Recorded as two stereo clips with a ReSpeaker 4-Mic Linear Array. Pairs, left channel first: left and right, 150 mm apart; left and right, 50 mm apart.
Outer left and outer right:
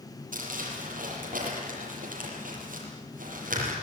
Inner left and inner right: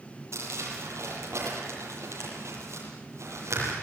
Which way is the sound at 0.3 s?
70° right (ahead or behind).